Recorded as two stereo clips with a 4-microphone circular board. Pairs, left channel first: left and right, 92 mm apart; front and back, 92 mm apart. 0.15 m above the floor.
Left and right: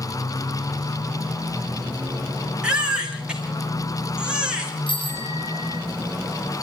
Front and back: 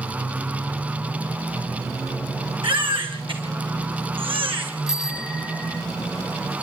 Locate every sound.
2.6 s a baby crying: 170° right, 3.5 m
4.9 s a bicycle bell: 95° left, 2.5 m